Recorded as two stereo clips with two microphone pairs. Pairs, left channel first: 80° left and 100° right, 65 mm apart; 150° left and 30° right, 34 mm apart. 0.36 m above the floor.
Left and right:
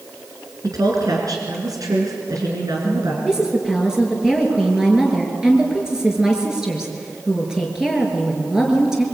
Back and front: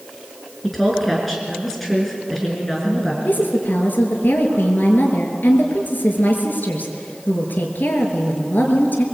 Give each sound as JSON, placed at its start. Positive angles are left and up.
{"t": 0.6, "sound": "a woman speaking", "azimuth_deg": -120, "distance_m": 5.0}
{"t": 3.2, "sound": "a woman speaking", "azimuth_deg": 180, "distance_m": 5.0}